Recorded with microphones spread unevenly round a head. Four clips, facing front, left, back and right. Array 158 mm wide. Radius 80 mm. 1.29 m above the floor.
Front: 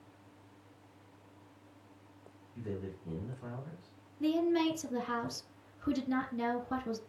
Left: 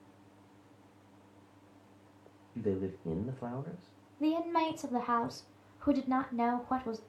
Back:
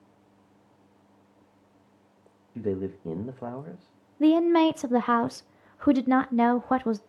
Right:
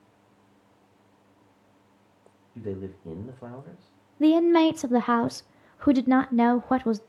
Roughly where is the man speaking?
Behind.